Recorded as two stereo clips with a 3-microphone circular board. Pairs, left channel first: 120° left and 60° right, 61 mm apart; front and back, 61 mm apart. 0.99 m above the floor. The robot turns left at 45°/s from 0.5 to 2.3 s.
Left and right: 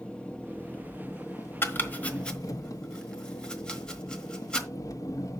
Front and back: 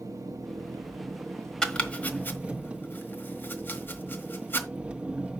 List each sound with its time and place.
0.0 s an engine running: 165° right, 1.2 m; by 5.4 s 110° left, 1.2 m
1.6 s chopping: 75° left, 1.2 m; by 4.7 s 45° left, 1.2 m